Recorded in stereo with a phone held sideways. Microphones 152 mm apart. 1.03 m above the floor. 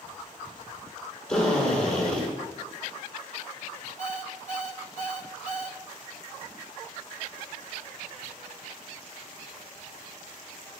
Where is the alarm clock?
60° right (ahead or behind), 1.9 m.